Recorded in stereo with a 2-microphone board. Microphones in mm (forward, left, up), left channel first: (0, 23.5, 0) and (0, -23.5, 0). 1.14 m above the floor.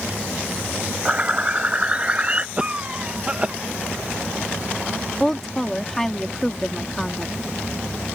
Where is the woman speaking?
5° left (ahead or behind).